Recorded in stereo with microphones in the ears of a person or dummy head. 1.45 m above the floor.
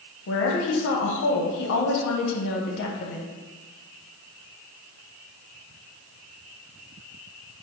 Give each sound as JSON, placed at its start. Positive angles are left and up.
{"t": 0.3, "sound": "a woman speaking", "side_deg": 80, "distance_m": 0.8}